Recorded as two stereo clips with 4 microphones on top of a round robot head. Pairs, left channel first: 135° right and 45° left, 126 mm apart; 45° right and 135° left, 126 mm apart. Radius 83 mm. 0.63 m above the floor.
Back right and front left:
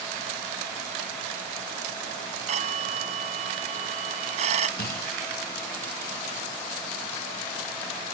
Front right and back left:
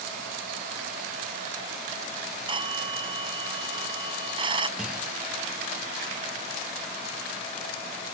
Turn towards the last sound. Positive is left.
turn(degrees=-140)